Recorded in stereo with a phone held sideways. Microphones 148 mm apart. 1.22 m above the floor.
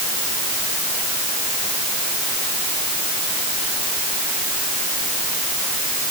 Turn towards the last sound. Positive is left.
No sound to turn to.